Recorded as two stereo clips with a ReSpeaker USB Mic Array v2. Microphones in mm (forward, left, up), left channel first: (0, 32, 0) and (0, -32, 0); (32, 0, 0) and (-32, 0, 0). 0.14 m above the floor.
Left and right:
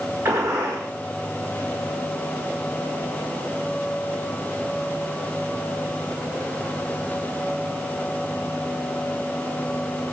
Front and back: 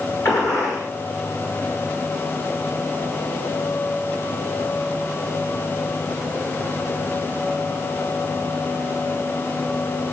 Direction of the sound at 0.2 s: 35° right.